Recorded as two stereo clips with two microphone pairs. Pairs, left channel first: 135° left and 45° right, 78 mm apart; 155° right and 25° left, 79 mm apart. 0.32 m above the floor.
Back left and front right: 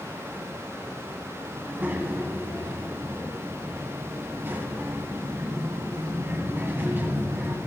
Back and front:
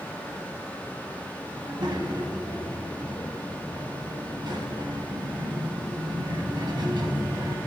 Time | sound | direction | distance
1.6 | a child speaking | 20° left | 1.6 m